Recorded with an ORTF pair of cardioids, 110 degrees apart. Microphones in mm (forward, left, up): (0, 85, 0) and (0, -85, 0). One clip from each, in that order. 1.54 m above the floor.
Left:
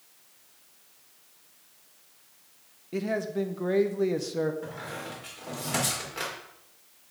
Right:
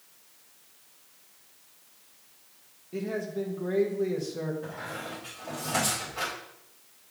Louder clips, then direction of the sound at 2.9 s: Left 3 dB; 35° left.